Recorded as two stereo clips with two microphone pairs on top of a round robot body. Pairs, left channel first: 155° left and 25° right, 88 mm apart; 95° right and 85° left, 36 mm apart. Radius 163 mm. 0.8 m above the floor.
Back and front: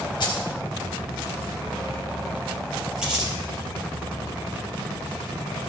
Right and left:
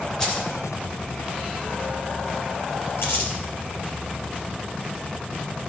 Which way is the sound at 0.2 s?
170° right.